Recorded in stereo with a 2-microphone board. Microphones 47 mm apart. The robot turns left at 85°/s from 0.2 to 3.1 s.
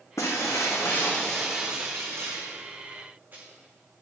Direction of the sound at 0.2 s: 105° left.